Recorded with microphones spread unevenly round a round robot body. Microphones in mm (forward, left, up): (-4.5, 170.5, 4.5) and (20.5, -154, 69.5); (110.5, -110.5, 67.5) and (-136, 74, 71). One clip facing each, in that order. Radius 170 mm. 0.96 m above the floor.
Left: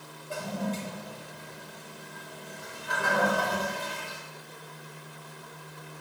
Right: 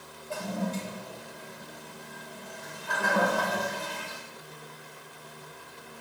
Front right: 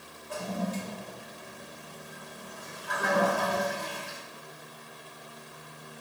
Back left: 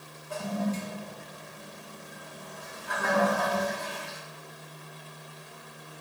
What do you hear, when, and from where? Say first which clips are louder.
0.3 s a toilet flushing: even, back left 3 dB; 15° left, 2.5 m